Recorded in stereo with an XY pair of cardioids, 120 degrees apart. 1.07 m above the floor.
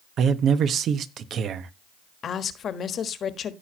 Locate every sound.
0.2 s a man speaking: 55° right, 1.0 m
2.2 s a woman speaking: 45° left, 1.4 m